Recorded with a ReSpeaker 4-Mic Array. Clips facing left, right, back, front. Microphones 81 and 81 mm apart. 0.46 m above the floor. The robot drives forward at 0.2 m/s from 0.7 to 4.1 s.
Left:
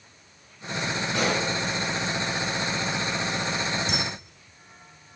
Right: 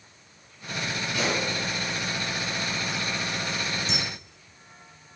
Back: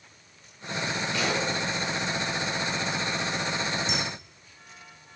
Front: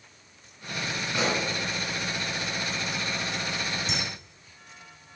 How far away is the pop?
About 3 m.